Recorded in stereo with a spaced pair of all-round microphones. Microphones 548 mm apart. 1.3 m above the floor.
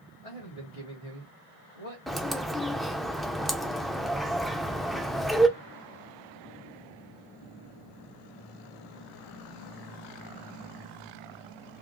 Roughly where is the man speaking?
Left.